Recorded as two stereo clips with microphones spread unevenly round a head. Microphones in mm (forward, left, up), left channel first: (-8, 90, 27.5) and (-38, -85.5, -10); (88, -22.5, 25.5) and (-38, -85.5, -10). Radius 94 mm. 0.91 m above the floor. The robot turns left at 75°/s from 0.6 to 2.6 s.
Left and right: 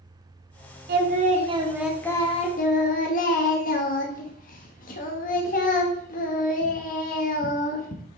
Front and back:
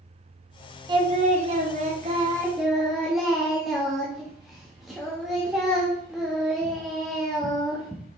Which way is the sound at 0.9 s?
105° right.